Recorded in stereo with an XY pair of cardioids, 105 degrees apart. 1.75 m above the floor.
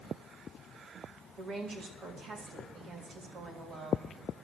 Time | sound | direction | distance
1.4 | a woman speaking | 50° right | 3 m